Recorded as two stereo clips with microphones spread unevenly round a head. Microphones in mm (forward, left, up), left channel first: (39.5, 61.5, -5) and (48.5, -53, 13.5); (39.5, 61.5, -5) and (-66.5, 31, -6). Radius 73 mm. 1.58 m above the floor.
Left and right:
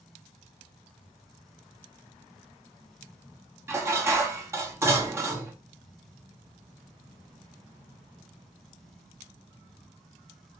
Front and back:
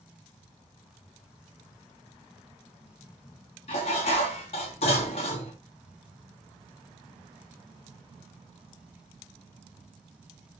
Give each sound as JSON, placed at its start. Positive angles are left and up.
{"t": 3.7, "sound": "dishes clattering", "azimuth_deg": -25, "distance_m": 1.4}